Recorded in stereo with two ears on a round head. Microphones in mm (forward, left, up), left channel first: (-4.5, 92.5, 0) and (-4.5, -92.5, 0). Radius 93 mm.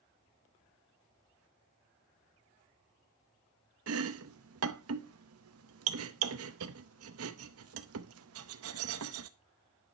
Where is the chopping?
75° right (ahead or behind), 0.8 m.